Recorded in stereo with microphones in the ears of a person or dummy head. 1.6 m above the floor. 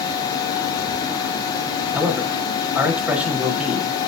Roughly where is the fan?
Left.